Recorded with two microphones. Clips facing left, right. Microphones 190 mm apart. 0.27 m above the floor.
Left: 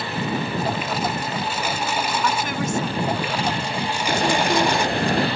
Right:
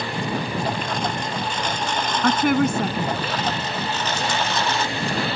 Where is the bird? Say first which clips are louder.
Left 8 dB; 60° left (ahead or behind).